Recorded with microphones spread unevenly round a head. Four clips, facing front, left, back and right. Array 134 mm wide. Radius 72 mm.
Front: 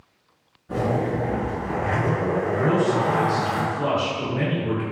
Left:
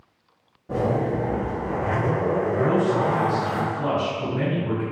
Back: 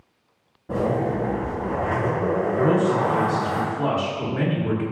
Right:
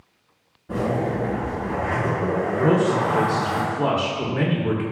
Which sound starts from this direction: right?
A man speaking, at 2.6 s.